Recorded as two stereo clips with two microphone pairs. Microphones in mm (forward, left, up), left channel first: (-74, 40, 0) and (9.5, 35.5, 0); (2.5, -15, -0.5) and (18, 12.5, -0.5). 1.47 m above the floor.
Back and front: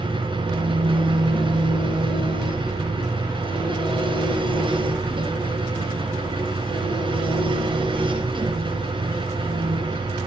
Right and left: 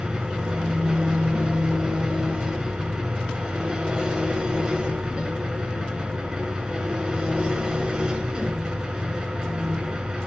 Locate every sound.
0.0 s an engine running: straight ahead, 8 m